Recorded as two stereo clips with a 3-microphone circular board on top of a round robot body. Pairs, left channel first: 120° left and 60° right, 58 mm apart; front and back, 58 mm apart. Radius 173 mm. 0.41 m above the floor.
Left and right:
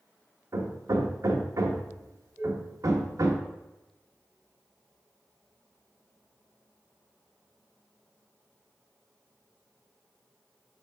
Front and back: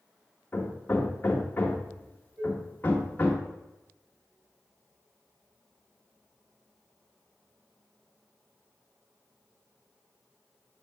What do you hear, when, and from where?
0.5 s hammering: 60° right, 1.5 m
2.4 s dishes clattering: 130° right, 4 m